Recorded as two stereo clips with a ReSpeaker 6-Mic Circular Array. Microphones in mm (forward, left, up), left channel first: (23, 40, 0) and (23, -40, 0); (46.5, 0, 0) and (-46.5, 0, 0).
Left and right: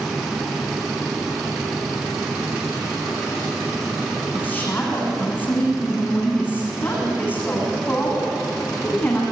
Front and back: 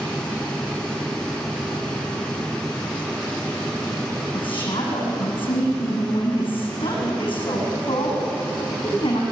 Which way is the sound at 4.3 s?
25° left.